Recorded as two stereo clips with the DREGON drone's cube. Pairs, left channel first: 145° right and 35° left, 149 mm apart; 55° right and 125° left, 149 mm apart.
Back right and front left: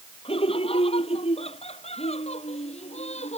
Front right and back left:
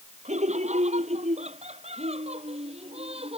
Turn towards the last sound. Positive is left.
turn(degrees=170)